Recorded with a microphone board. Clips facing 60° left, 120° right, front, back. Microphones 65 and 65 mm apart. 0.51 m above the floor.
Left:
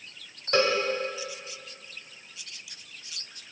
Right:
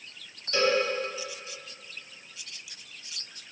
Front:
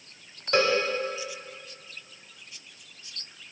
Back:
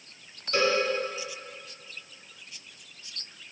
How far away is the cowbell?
About 1.3 m.